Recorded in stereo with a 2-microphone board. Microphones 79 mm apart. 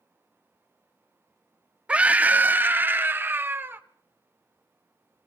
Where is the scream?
15° right (ahead or behind), 0.6 m; by 3.8 s 30° right (ahead or behind), 1.5 m.